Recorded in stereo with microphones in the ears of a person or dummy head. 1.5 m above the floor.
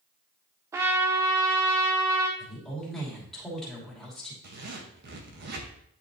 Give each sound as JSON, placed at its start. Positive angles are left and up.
{"t": 0.7, "sound": "a trumpet", "side_deg": -10, "distance_m": 0.5}
{"t": 2.4, "sound": "a woman speaking", "side_deg": 5, "distance_m": 2.5}
{"t": 4.4, "sound": "a zipper", "side_deg": -55, "distance_m": 1.0}